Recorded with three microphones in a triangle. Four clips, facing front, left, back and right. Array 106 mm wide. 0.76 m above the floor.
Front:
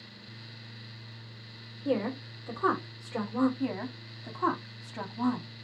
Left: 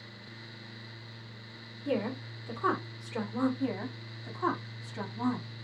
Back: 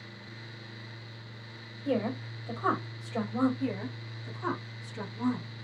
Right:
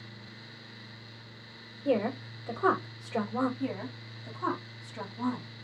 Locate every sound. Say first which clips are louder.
1.9 s a woman speaking: right 4 dB, even; 50° right, 2 m
3.6 s a woman speaking: left 1 dB, even; straight ahead, 1.6 m